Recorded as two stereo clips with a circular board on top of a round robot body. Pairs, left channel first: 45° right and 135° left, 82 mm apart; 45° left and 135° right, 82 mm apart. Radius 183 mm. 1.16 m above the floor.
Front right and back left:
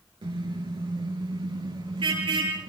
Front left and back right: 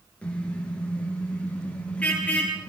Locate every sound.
0.2 s a car horn: 120° left, 9.5 m